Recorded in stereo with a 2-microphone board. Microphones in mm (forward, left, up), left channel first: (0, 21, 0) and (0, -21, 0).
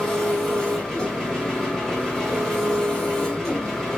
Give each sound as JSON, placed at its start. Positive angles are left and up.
{"t": 0.0, "sound": "an engine running", "side_deg": 5, "distance_m": 1.2}